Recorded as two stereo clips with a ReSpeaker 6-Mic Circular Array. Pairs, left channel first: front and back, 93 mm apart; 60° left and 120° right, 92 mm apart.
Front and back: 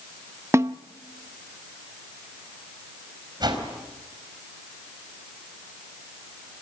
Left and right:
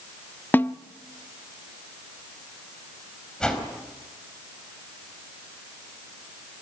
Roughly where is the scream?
No scream in this recording.